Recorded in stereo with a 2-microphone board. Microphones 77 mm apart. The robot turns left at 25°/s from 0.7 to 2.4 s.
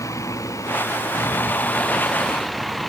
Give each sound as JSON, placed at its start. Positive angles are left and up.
{"t": 0.0, "sound": "a vehicle", "azimuth_deg": 45}